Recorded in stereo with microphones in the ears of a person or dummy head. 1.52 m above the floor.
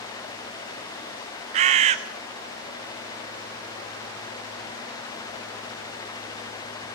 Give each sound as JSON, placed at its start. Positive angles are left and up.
{"t": 1.5, "sound": "a bird", "side_deg": -35, "distance_m": 1.1}